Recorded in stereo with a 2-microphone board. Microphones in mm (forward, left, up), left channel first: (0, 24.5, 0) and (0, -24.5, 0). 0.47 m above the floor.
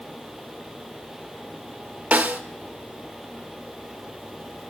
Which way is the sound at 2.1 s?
35° right (ahead or behind).